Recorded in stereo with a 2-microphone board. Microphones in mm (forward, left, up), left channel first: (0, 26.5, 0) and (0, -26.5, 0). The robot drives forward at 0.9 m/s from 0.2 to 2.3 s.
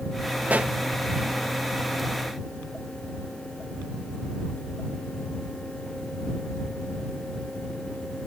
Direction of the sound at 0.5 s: 35° right (ahead or behind).